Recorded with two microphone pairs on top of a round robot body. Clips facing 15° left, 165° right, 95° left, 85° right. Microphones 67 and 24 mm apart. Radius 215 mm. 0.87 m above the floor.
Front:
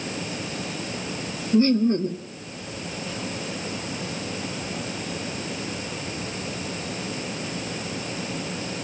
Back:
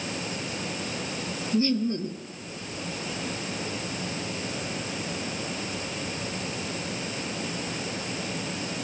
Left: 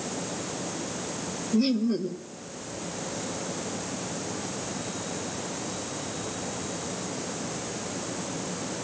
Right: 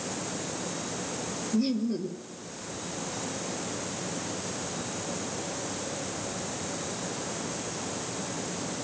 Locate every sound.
1.5 s laughter: 45° left, 1.5 m